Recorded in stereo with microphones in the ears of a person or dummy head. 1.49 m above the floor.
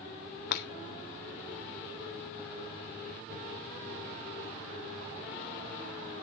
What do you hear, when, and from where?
0.5 s breaking glass: 65° left (ahead or behind), 1.7 m